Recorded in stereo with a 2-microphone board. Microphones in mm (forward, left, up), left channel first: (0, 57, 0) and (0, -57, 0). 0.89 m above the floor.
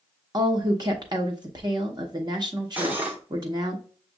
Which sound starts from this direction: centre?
Cutlery clinking, at 2.8 s.